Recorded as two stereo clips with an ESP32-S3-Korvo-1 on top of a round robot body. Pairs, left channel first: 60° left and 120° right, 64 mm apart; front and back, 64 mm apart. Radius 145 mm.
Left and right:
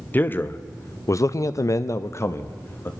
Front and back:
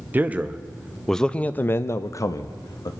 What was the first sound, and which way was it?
A man speaking, 120° left.